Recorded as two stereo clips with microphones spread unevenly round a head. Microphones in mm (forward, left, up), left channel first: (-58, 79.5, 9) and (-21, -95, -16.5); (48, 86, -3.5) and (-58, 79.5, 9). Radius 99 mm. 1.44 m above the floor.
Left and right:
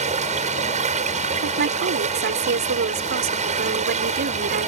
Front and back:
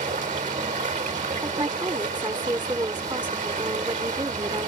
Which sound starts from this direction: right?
A woman speaking, at 1.4 s.